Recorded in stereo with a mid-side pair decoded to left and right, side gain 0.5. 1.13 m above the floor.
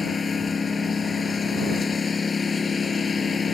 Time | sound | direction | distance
0.0 | a lawn mower | 30° left | ?